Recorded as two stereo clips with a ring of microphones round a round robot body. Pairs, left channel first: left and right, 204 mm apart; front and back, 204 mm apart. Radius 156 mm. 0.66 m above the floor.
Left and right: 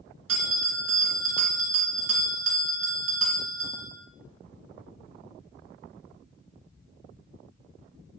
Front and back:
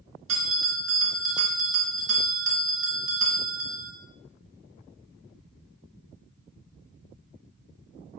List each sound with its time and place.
0.3 s a bell: 135° right, 2 m